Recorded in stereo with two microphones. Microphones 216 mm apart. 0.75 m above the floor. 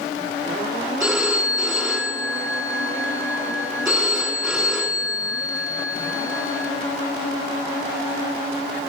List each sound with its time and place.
1.0 s a phone ringing: 5° right (ahead or behind), 5.5 m